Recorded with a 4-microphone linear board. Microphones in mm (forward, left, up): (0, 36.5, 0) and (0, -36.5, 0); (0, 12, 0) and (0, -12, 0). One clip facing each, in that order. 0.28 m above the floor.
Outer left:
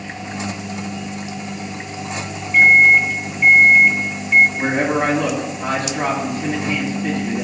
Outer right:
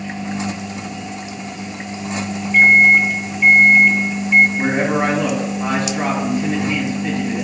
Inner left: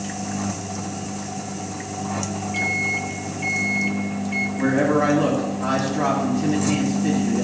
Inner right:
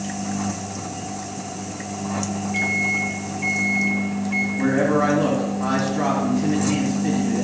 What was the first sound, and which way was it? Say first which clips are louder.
A microwave: even, inner right 1 dB; centre (ahead or behind).